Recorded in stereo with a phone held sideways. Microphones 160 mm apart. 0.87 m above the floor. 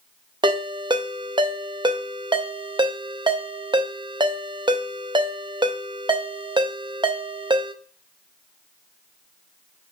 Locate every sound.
0.4 s a ringtone: 30° right (ahead or behind), 0.5 m